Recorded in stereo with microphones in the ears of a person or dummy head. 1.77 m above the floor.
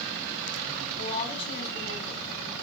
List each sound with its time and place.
1.0 s a woman speaking: 40° left (ahead or behind), 5 m